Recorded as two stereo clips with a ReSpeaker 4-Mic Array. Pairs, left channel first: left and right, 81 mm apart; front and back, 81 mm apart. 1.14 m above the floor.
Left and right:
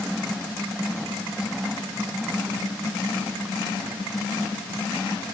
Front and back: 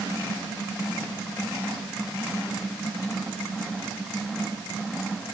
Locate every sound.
Only background noise.